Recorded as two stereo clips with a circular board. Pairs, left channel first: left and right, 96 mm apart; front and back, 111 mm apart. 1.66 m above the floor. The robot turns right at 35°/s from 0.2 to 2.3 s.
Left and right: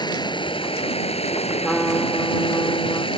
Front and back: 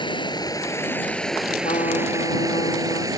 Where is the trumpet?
Straight ahead; by 3.1 s 25° left.